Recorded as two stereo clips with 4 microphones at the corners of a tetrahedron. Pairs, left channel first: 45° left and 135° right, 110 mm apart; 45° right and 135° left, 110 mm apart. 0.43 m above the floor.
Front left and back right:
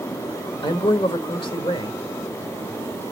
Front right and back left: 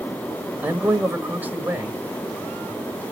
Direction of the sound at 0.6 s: 65° left.